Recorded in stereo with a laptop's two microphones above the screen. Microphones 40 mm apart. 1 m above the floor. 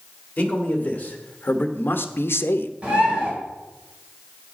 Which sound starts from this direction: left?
A man speaking, at 0.4 s.